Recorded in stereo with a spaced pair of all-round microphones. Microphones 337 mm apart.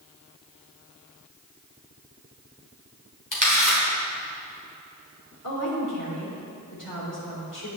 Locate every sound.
3.3 s a camera shutter: 65° left (ahead or behind), 3 m
5.4 s a woman speaking: 70° left (ahead or behind), 3.5 m